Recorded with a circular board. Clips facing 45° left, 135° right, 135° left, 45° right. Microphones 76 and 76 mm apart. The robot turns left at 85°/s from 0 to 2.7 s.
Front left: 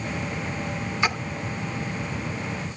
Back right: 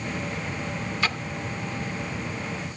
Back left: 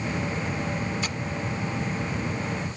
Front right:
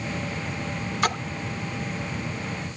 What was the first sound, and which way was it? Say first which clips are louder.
A splash: front left 3 dB, front right 7 dB; 25° right.